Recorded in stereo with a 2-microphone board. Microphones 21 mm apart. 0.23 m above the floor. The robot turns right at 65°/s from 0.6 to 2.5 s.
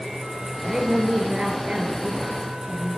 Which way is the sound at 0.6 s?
145° right.